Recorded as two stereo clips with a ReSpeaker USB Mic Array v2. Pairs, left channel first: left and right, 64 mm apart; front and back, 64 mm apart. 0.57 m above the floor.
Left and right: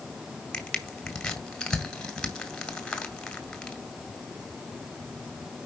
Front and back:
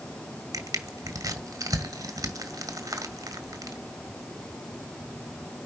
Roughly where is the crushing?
Behind.